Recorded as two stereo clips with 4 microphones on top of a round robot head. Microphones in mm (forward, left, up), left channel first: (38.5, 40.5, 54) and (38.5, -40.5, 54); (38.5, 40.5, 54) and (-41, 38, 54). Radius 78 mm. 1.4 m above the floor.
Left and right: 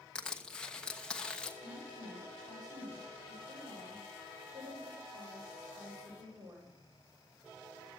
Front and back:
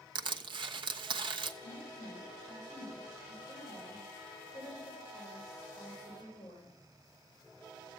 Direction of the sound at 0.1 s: 170° left.